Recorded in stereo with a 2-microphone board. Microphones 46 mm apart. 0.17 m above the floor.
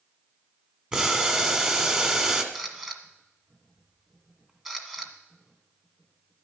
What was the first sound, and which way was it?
Boiling, 20° right (ahead or behind).